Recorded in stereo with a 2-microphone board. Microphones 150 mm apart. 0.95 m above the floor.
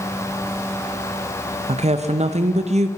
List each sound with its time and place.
1.7 s a woman speaking: 50° right (ahead or behind), 0.6 m